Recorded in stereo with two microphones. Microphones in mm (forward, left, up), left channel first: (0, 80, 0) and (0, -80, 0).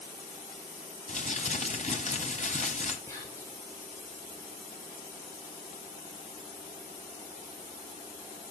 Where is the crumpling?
50° left (ahead or behind), 1.4 m.